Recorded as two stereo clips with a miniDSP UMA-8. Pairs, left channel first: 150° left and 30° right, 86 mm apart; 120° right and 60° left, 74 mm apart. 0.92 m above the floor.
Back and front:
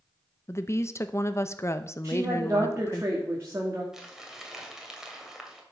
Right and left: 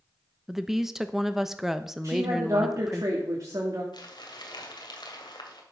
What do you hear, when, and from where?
0.5 s a woman speaking: 140° left, 0.7 m
2.0 s a woman speaking: 25° left, 2.0 m
3.9 s crumpling: 115° right, 2 m